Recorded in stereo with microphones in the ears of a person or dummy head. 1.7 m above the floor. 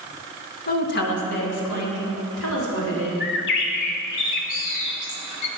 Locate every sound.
0.7 s a woman speaking: 50° left (ahead or behind), 1.4 m; by 3.1 s 85° left, 4.5 m
3.2 s a bird: 55° left (ahead or behind), 1.0 m